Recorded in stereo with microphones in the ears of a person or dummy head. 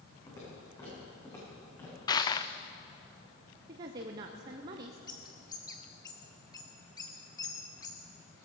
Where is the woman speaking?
20° right (ahead or behind), 0.7 m.